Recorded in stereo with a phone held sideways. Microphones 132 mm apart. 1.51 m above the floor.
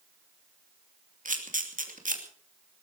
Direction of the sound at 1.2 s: 85° right.